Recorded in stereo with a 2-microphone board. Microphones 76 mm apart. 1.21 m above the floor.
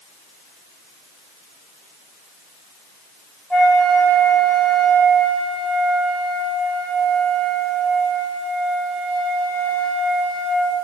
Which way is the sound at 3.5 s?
10° left (ahead or behind).